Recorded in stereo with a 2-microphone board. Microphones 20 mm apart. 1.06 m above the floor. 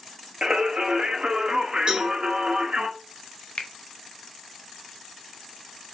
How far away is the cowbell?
About 1.6 m.